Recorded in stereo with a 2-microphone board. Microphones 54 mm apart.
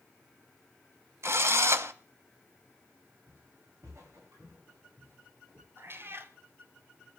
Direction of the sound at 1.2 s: 55° right (ahead or behind).